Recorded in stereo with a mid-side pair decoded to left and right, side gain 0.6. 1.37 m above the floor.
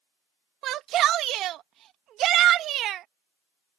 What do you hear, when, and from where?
0.6 s a shout: 55° right